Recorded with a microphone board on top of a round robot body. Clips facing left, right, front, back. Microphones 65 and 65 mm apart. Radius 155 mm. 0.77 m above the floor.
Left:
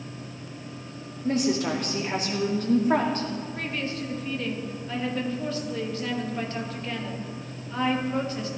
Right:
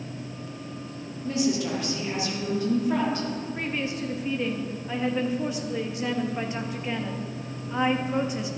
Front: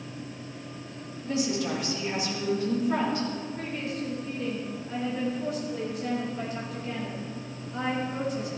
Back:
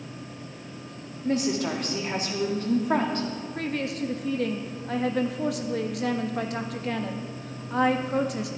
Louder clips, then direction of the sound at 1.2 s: Left 1 dB, back 3 dB; 135° left.